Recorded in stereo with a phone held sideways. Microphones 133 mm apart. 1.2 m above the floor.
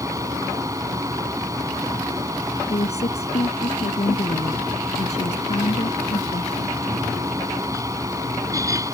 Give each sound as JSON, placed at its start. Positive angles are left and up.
{"t": 0.0, "sound": "a fan", "side_deg": -25}
{"t": 2.7, "sound": "a woman speaking", "side_deg": 50}